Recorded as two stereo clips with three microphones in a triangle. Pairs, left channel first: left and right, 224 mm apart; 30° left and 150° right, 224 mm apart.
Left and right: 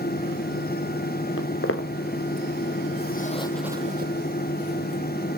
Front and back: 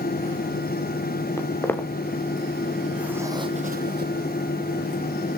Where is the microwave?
I don't hear a microwave.